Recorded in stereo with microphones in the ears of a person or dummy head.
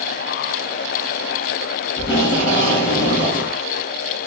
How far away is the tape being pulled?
About 2.5 m.